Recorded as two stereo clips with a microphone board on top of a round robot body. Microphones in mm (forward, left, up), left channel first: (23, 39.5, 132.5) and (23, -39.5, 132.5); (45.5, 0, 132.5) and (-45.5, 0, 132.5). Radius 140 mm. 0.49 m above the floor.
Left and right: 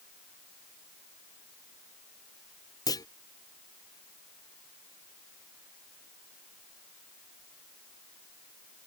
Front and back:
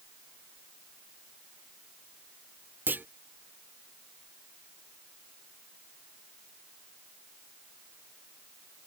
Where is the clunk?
115° left.